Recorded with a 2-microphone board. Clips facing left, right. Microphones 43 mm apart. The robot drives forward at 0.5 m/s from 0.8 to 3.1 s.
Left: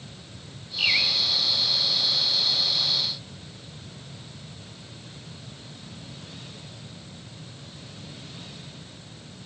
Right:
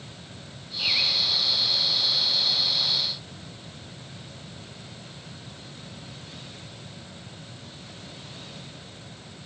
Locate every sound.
0.8 s a bird: 75° left (ahead or behind), 2.5 m; by 1.2 s 70° left (ahead or behind), 2.5 m